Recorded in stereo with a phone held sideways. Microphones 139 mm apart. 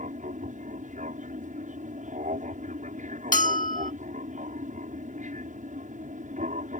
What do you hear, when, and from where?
0.0 s an aircraft: 65° right (ahead or behind)
3.3 s a bell: 75° left (ahead or behind)